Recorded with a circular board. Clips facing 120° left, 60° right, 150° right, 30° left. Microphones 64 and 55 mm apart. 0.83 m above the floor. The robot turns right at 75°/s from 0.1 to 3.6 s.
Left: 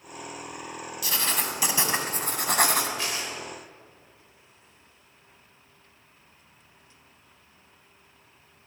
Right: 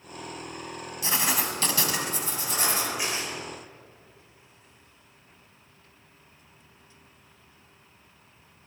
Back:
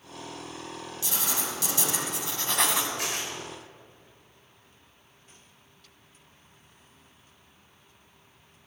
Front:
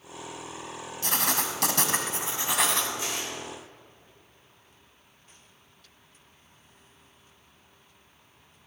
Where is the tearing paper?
135° right, 3 m; by 3.3 s 110° right, 3 m.